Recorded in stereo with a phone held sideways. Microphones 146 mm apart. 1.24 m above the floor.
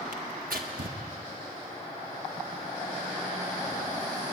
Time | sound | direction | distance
0.1 | tearing paper | 80° right | 1.5 m